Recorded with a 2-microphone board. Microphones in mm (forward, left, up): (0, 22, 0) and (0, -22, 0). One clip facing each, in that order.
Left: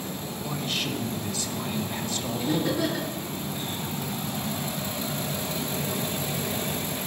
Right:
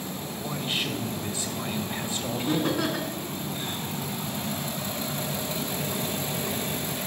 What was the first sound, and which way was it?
A man speaking, 25° right (ahead or behind).